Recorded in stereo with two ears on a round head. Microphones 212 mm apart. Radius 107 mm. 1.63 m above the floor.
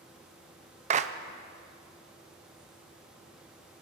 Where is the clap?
35° right (ahead or behind), 0.7 m.